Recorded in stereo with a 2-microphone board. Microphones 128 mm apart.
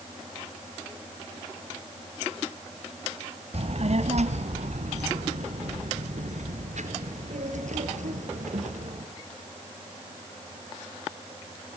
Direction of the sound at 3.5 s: 55° right (ahead or behind).